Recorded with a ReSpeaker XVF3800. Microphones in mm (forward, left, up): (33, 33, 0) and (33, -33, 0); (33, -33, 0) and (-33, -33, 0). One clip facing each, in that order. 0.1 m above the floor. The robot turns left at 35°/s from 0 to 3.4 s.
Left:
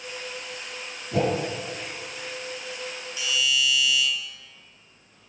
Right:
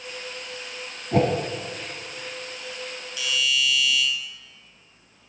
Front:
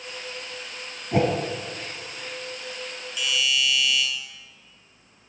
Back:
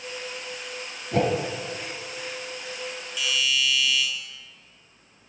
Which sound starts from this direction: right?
A whoosh, at 1.1 s.